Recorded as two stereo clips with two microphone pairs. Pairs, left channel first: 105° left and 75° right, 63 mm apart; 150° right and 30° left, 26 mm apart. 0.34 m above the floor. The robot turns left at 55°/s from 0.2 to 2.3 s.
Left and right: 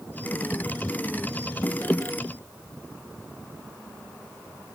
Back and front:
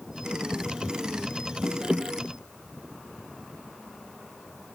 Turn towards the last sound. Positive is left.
No sound to turn to.